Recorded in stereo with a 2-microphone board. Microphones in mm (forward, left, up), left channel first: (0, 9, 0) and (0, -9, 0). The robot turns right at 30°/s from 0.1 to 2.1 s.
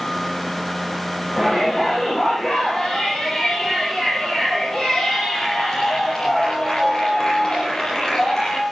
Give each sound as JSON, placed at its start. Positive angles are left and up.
{"t": 1.4, "sound": "a shout", "side_deg": 5, "distance_m": 9.0}